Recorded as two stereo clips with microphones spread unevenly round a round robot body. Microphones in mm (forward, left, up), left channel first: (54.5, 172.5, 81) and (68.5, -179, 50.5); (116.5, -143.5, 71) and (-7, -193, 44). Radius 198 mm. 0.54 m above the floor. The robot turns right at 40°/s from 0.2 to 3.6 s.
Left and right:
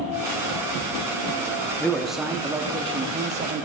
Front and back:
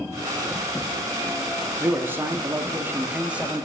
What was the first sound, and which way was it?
A man speaking, 175° right.